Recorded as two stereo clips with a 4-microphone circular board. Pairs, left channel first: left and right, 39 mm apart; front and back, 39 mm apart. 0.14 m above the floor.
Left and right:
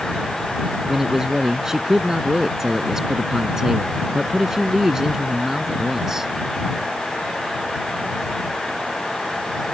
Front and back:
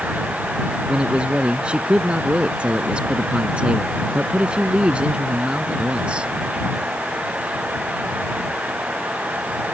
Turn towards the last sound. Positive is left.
turn(degrees=-155)